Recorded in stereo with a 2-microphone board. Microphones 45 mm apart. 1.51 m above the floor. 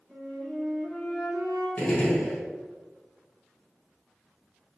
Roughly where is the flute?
Centre.